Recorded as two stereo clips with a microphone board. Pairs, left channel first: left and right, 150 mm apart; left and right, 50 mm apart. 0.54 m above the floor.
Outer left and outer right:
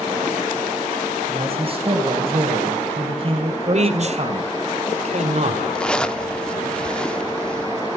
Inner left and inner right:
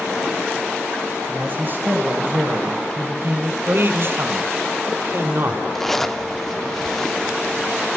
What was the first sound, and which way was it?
A man speaking, 35° right (ahead or behind).